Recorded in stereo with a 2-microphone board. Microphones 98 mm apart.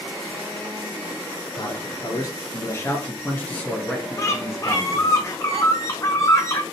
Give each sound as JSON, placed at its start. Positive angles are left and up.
{"t": 1.6, "sound": "a man speaking", "side_deg": 50, "distance_m": 1.9}
{"t": 4.2, "sound": "a bird", "side_deg": 30, "distance_m": 1.2}